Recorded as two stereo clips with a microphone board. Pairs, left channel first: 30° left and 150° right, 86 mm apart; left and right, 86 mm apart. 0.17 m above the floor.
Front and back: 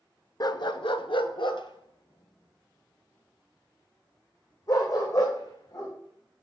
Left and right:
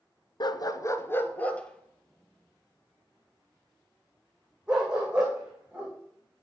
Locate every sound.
0.4 s a dog barking: 65° left, 0.5 m; by 5.9 s 10° right, 3 m